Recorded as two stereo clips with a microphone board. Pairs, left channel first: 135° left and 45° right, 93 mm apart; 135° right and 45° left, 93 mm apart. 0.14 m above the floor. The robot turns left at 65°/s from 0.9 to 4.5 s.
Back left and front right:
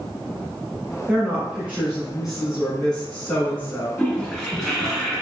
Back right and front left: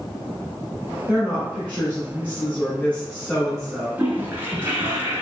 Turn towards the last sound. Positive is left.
turn(degrees=55)